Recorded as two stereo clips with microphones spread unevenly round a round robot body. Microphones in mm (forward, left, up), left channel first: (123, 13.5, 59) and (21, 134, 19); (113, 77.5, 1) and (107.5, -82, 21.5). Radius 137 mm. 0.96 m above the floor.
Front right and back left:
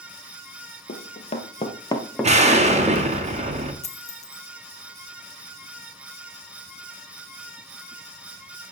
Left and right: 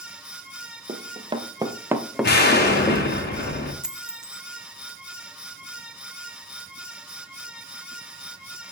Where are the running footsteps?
50° right, 1.6 m; by 3.2 s 90° left, 1.0 m.